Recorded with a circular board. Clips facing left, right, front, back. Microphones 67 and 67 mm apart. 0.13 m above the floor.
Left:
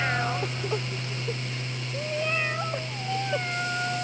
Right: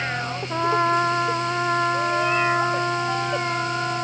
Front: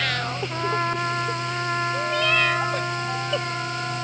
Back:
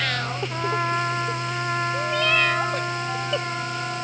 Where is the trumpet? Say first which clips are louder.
Right 12 dB, back 1 dB; 90° right.